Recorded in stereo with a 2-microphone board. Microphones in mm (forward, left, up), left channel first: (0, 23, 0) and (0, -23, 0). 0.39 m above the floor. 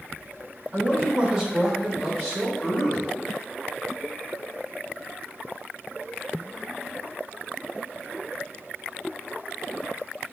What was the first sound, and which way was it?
A man speaking, 25° right (ahead or behind).